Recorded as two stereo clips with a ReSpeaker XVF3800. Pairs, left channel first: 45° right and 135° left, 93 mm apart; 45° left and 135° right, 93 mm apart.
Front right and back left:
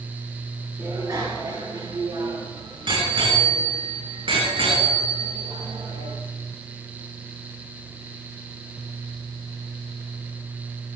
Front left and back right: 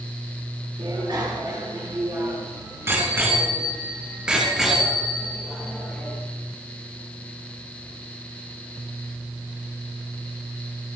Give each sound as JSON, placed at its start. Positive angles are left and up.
{"t": 0.8, "sound": "a bicycle bell", "azimuth_deg": -170, "distance_m": 6.5}